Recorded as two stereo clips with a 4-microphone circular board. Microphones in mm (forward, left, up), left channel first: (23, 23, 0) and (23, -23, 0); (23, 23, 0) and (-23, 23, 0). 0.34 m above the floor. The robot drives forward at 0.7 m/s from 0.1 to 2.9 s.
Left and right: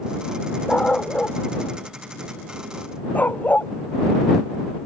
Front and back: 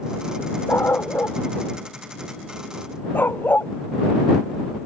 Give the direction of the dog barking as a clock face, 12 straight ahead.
11 o'clock.